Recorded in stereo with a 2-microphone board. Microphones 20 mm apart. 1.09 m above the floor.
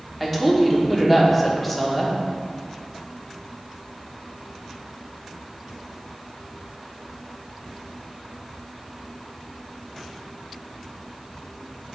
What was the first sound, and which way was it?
A woman speaking, 5° left (ahead or behind).